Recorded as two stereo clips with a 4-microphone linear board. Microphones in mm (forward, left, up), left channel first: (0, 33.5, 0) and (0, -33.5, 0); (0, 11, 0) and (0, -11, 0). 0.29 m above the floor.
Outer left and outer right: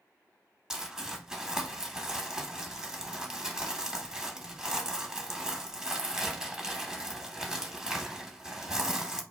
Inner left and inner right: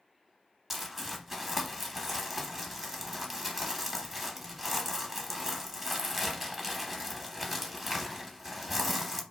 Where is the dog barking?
I don't hear a dog barking.